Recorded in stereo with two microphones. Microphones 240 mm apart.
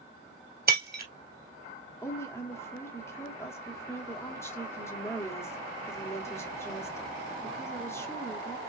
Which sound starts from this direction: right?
Breaking glass, at 0.7 s.